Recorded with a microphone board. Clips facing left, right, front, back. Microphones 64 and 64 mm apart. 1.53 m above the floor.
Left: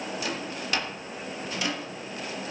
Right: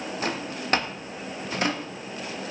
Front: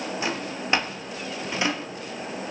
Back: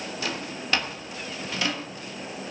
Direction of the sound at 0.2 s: 60° right.